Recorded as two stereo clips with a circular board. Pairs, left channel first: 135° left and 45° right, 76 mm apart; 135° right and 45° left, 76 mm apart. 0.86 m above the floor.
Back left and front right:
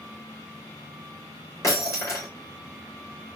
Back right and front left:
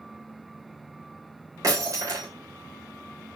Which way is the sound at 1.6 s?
90° left.